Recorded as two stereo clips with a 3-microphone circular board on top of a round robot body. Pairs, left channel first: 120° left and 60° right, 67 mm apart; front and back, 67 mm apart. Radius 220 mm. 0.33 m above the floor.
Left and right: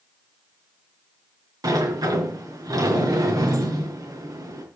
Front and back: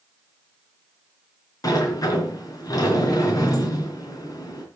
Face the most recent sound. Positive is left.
turn(degrees=-35)